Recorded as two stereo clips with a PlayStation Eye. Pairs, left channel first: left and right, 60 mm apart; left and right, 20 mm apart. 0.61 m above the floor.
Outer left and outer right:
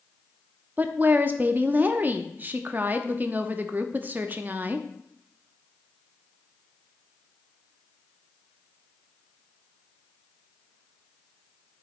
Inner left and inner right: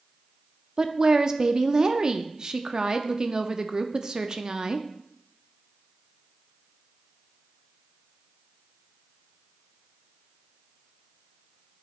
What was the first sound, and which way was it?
A woman speaking, 30° right (ahead or behind).